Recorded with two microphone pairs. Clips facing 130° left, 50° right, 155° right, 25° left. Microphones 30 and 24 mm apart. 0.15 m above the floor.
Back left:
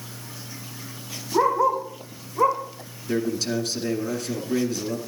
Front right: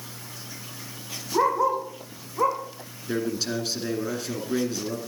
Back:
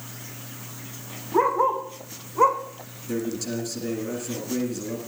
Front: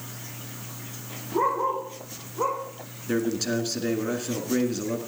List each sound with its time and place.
1.3 s a dog barking: 135° right, 5 m; by 2.6 s 145° right, 4 m
3.1 s a man speaking: 20° left, 2 m